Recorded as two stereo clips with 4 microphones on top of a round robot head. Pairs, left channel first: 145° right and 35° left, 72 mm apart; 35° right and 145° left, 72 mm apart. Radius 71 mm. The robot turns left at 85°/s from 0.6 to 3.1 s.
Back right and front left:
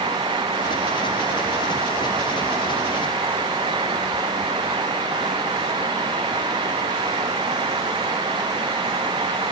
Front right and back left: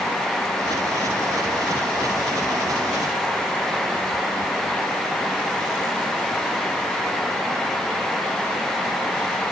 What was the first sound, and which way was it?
Only background noise.